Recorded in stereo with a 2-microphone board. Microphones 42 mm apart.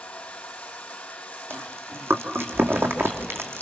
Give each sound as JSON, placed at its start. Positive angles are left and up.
{"t": 0.0, "sound": "running water", "side_deg": 25, "distance_m": 2.5}
{"t": 1.5, "sound": "chewing", "side_deg": -65, "distance_m": 2.0}